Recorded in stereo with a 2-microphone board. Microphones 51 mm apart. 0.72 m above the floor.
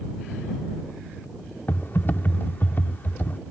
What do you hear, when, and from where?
1.7 s typing on a keyboard: 45° left (ahead or behind)